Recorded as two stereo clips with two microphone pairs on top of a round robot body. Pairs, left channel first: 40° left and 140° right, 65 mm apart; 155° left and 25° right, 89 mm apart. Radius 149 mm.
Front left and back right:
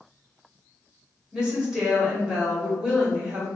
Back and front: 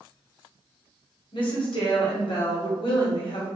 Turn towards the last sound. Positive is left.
turn(degrees=145)